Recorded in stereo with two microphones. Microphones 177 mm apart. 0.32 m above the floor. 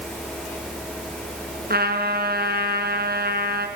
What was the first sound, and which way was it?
A trumpet, 60° right (ahead or behind).